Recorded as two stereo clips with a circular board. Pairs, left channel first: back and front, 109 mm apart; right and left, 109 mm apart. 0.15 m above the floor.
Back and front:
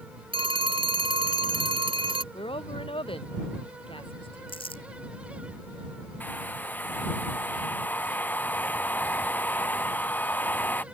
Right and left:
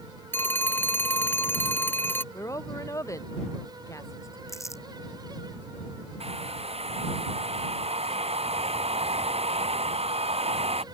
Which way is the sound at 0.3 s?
20° right.